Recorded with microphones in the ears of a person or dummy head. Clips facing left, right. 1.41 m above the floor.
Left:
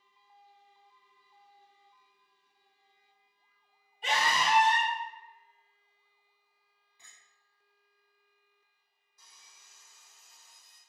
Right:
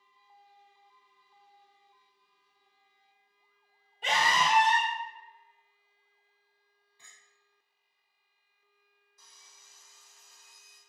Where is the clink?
15° left (ahead or behind), 1.4 m.